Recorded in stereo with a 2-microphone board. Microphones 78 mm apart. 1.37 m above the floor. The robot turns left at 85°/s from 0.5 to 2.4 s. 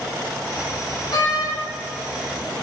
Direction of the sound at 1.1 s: 115° left.